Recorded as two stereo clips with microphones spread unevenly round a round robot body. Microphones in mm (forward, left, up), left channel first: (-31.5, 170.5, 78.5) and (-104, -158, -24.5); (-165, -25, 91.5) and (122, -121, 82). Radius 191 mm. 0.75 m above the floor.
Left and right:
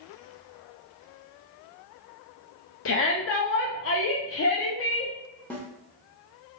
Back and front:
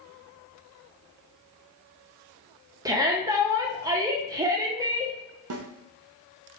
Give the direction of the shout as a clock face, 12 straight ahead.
11 o'clock.